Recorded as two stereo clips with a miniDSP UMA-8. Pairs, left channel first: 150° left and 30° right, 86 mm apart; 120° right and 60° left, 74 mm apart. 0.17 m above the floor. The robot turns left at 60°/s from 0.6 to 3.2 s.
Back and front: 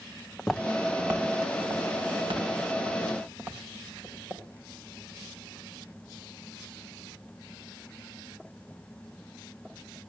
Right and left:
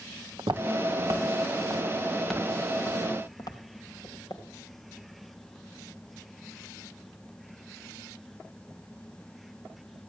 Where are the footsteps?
70° left, 0.7 m; by 4.4 s 90° right, 3 m.